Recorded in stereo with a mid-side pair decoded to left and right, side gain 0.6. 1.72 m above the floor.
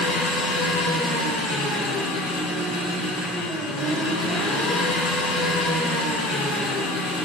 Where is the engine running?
70° left, 1.9 m.